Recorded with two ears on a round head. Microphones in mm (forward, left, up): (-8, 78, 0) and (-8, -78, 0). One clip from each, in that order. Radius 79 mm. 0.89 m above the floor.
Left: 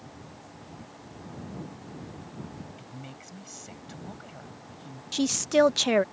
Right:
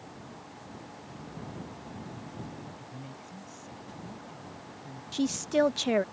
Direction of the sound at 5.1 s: 25° left (ahead or behind).